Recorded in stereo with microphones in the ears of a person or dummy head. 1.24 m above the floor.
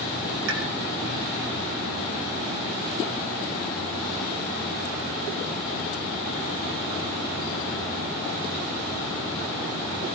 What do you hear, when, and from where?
0.5 s a pop: 80° right, 5.5 m